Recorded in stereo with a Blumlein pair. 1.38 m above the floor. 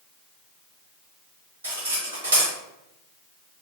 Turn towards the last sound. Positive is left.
turn(degrees=-65)